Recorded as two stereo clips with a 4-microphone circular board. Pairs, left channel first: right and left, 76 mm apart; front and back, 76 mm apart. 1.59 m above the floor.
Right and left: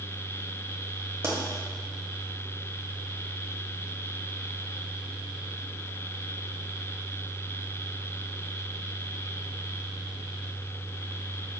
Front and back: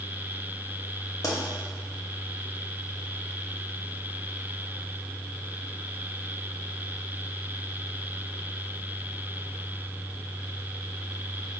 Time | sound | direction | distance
1.2 | a pop | 40° left | 0.8 m